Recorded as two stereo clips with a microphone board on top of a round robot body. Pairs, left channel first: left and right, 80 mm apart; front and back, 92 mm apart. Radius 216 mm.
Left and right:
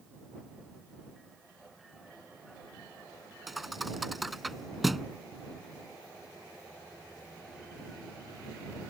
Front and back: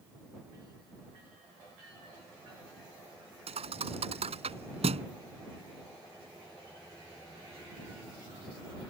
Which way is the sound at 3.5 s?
Straight behind.